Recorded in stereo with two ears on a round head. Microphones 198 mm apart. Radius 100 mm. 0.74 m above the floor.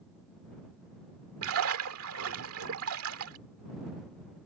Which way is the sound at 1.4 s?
70° right (ahead or behind).